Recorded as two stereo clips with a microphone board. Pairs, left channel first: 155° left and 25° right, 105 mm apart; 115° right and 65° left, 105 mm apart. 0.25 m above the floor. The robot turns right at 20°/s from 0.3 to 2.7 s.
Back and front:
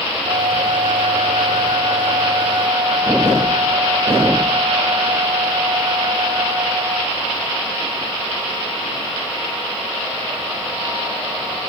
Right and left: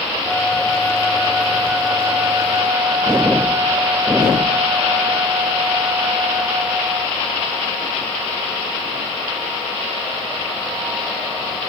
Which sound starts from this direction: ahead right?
A flute, at 0.2 s.